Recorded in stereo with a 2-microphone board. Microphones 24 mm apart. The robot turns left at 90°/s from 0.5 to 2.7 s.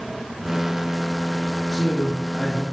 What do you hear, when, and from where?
1.7 s a man speaking: 105° right, 3 m; by 2.6 s 170° left, 3 m